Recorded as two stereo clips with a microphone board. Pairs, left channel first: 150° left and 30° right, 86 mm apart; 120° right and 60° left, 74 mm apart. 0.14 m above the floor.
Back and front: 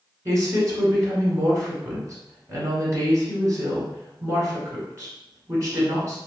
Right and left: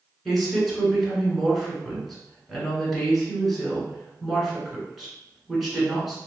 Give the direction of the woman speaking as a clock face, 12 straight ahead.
1 o'clock.